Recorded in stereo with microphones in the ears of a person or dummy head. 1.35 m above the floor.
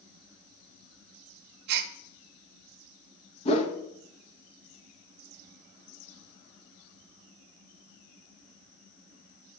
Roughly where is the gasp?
Right.